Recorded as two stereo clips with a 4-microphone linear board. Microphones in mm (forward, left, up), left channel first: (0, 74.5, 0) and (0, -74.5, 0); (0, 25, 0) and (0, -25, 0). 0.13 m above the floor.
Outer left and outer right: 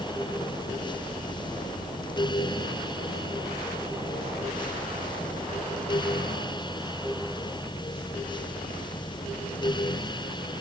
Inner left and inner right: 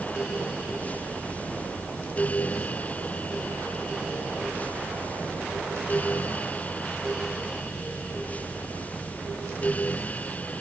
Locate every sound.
Only background noise.